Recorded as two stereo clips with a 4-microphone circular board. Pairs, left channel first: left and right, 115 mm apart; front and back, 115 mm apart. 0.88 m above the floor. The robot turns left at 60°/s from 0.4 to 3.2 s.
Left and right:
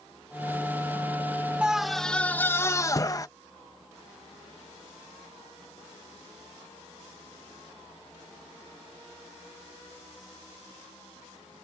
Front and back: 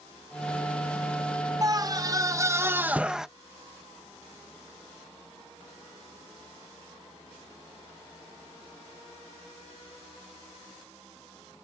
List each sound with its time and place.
1.6 s a scream: 165° right; by 3.3 s 100° left